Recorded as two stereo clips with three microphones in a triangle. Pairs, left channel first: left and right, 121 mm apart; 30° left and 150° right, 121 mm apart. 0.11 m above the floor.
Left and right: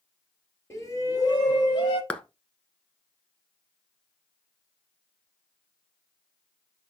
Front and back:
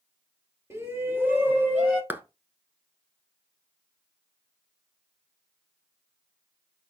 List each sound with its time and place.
0.7 s a shout: 150° left, 2.5 m; by 2.0 s 135° left, 4 m
2.1 s a clap: 160° left, 1.0 m